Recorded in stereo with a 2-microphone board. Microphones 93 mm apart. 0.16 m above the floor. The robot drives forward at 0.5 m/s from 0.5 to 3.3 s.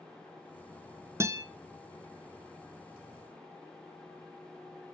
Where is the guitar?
30° right (ahead or behind), 0.6 m; by 1.4 s 35° right (ahead or behind), 0.5 m.